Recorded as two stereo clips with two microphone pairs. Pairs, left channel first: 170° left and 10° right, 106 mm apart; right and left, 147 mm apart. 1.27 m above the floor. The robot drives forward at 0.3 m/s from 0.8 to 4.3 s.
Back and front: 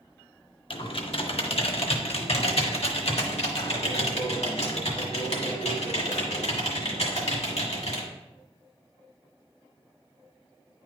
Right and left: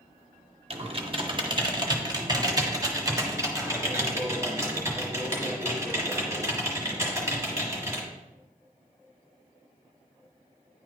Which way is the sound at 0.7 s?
135° left.